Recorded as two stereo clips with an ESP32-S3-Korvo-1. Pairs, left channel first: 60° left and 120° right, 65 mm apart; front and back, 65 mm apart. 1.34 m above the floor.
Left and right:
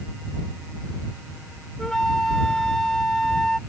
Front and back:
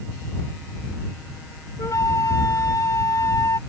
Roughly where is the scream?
No scream in this recording.